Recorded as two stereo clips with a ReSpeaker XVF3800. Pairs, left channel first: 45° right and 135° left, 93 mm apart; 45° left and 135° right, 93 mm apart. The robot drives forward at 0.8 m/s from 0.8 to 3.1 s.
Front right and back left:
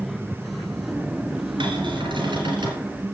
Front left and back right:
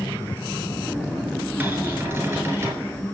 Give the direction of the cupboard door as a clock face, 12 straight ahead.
7 o'clock.